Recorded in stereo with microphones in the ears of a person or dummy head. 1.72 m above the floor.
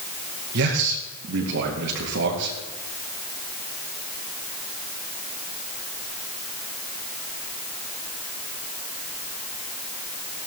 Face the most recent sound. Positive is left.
turn(degrees=-70)  # may be behind; listen again after turning